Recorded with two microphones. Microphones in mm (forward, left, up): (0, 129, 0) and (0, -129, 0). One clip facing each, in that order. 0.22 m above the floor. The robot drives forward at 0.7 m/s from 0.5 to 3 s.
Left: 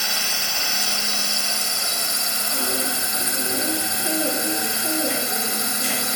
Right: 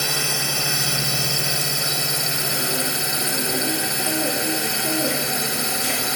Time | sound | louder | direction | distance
0.0 | a drone | right 6 dB | 60° right (ahead or behind) | ?